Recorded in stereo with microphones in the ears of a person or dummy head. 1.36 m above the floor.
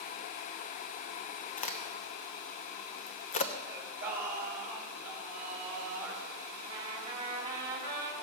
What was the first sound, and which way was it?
A crack, 45° left (ahead or behind).